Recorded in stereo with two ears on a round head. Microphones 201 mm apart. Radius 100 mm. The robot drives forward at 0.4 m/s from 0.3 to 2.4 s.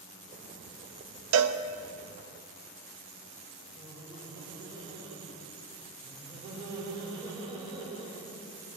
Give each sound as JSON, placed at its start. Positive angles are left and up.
{"t": 1.3, "sound": "a cowbell", "side_deg": -80, "distance_m": 0.5}
{"t": 3.8, "sound": "laughter", "side_deg": -20, "distance_m": 1.6}